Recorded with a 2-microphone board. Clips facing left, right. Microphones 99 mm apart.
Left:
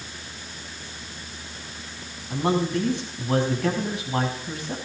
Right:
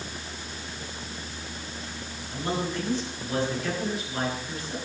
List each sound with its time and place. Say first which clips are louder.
2.3 s a man speaking: left 7 dB; 55° left (ahead or behind), 7 m